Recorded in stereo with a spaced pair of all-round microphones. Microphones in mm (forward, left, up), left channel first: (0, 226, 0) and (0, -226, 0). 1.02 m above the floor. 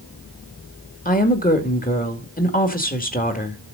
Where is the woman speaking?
20° left (ahead or behind), 2 m.